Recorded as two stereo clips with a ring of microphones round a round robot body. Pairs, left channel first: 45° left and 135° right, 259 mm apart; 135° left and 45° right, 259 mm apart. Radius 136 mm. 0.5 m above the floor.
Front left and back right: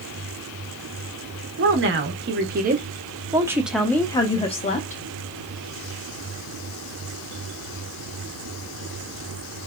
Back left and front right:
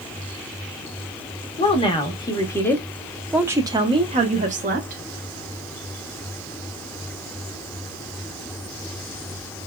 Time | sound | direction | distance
1.6 | a woman speaking | 160° right | 1.3 m